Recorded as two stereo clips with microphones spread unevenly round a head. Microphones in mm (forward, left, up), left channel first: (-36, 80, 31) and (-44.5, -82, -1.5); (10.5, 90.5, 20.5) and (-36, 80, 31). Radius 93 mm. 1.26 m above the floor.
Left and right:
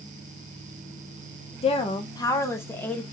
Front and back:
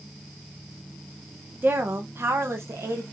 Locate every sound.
1.6 s a woman speaking: 145° left, 1.1 m; by 3.0 s 170° left, 1.8 m